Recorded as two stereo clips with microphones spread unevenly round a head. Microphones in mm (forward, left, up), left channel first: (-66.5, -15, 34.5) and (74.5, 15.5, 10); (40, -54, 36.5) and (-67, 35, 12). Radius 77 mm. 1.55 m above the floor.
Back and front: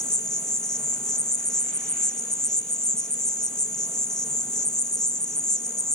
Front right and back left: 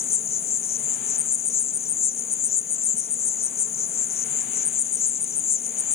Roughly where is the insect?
Right.